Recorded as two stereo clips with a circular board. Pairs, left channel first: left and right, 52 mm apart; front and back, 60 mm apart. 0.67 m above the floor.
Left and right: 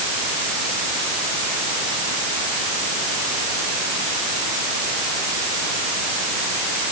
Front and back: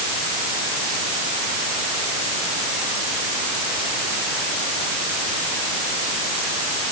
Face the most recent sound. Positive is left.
No sound to turn to.